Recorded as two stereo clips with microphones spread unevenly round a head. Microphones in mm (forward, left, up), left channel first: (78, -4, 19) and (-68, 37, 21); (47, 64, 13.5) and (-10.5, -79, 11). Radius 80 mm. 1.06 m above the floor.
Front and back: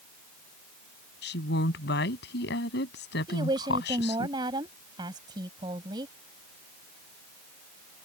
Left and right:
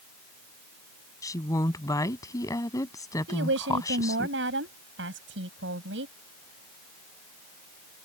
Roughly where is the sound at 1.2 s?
Ahead.